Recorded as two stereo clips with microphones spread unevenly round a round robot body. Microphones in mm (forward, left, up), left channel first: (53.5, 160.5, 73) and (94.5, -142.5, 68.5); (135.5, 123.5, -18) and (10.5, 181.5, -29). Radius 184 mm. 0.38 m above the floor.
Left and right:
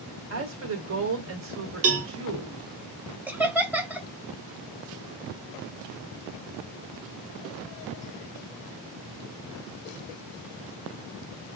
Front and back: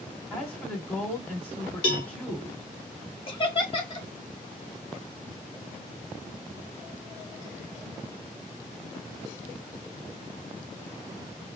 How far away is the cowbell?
About 0.8 m.